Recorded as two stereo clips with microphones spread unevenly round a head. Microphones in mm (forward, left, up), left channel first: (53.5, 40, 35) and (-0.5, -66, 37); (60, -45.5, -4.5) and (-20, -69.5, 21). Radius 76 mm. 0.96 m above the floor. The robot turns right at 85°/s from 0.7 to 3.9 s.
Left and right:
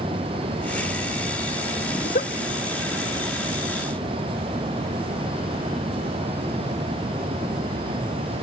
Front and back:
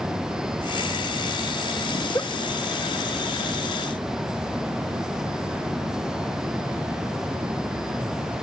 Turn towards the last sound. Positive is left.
turn(degrees=-125)